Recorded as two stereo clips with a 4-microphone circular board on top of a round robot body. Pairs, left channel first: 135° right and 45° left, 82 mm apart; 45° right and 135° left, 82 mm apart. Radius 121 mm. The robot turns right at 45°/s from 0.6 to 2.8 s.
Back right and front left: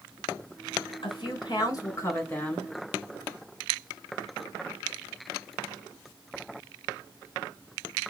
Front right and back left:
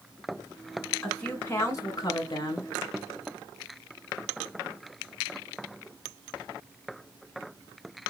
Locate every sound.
1.0 s a woman speaking: 125° right, 3 m; by 2.7 s 50° right, 3 m